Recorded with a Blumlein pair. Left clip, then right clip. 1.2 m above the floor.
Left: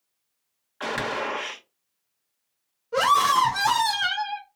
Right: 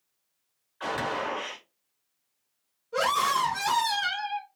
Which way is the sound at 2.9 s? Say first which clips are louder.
Left 6 dB; 55° left.